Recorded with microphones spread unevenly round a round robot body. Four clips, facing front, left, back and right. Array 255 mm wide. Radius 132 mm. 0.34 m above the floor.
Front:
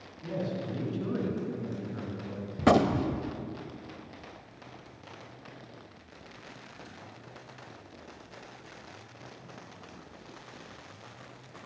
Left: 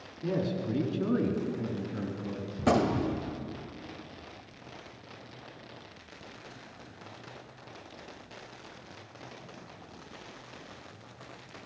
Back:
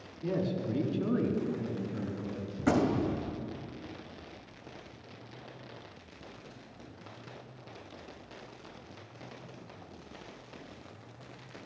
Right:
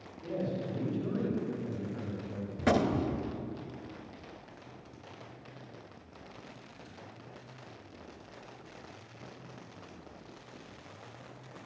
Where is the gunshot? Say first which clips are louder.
Left 2 dB, front 4 dB; 5° left, 0.9 m.